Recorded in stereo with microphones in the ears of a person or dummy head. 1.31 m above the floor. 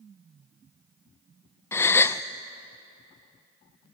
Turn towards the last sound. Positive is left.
turn(degrees=15)  # may be behind; listen again after turning